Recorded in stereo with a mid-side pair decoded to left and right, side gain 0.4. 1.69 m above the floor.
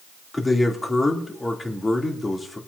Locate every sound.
0.3 s a man speaking: 20° left, 3 m